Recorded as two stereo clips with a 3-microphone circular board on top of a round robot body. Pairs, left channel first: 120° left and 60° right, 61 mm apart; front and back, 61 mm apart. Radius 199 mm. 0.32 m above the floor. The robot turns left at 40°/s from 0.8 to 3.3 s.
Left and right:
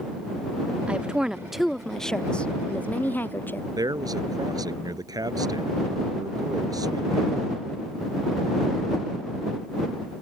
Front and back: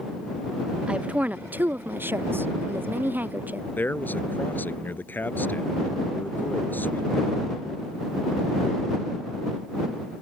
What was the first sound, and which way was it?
A woman speaking, 115° right.